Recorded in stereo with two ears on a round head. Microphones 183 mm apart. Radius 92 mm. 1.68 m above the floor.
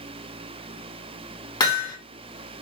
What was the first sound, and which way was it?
Hammering, 25° left (ahead or behind).